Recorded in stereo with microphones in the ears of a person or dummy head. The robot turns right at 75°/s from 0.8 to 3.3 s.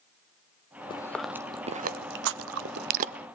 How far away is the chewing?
About 0.6 m.